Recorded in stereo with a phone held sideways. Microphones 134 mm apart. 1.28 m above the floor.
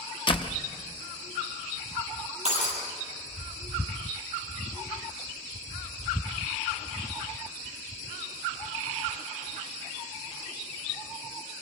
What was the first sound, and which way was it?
A door slam, 40° left (ahead or behind).